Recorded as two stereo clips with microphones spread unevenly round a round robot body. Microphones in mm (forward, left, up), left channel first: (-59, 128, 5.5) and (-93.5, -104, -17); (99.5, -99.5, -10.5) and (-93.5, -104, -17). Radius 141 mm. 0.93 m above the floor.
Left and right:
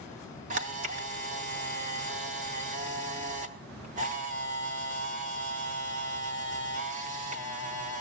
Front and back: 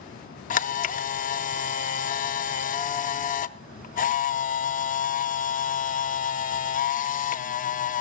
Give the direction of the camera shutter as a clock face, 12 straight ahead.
1 o'clock.